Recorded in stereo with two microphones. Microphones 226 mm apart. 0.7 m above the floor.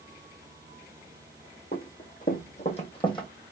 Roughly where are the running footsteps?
Left.